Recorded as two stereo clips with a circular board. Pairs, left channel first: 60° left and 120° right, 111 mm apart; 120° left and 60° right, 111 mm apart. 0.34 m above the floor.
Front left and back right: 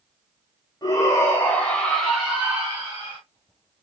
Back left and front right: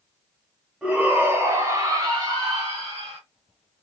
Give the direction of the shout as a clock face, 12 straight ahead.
11 o'clock.